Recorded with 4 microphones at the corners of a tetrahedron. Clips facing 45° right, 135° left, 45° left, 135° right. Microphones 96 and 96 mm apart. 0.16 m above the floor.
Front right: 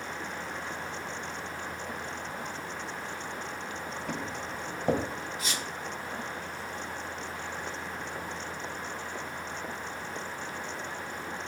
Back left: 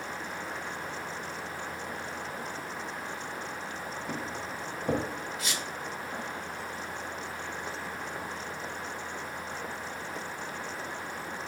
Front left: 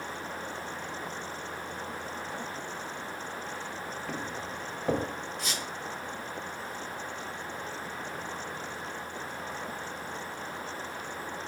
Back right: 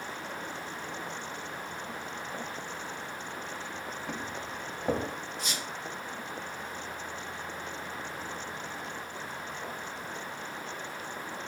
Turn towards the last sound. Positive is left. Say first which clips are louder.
# even, even
turn(degrees=20)